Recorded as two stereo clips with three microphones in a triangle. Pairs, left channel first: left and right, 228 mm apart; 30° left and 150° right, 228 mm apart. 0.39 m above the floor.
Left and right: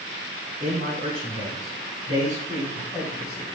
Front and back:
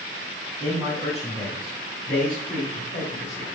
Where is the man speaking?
35° right, 2.5 m; by 3.5 s 5° left, 2 m.